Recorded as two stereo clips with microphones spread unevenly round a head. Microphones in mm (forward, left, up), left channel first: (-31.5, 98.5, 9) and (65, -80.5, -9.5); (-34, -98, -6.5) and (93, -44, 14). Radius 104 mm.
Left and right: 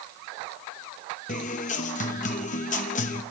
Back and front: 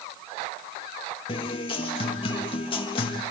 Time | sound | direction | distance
1.3 | a guitar | 145° left | 1.0 m